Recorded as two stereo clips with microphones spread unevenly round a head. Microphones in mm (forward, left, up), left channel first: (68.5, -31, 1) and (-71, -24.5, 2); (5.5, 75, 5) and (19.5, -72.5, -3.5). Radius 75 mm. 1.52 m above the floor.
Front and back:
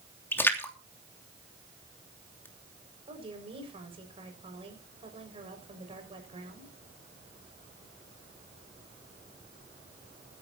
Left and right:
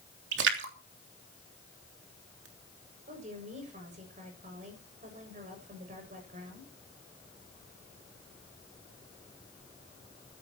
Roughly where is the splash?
Right.